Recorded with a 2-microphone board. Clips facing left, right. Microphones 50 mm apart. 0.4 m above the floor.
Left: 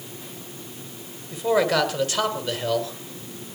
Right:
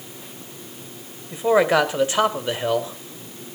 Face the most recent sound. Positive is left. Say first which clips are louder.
# right 4 dB
turn(degrees=-25)  # may be behind; listen again after turning